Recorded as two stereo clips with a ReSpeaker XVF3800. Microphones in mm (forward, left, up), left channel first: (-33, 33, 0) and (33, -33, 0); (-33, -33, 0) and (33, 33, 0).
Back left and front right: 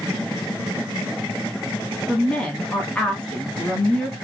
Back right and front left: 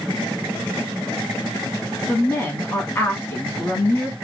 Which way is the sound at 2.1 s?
160° right.